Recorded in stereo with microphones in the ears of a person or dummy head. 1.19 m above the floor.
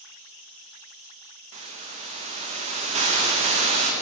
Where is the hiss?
35° right (ahead or behind), 0.6 m.